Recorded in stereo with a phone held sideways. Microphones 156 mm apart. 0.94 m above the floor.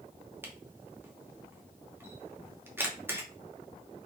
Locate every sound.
0.4 s a camera shutter: 15° right (ahead or behind), 1.0 m